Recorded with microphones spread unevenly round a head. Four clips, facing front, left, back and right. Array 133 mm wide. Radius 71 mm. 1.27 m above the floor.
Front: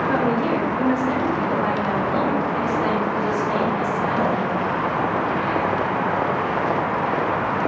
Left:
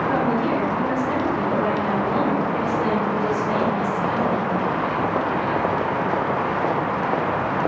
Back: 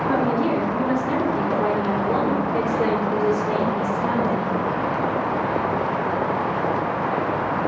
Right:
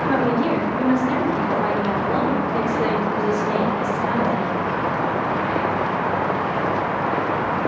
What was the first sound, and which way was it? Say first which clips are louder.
A woman speaking: right 3 dB, back 1 dB; 145° right.